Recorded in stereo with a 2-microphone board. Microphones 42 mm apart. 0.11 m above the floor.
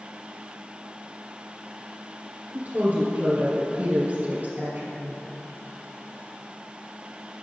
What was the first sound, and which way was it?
A woman speaking, 40° right (ahead or behind).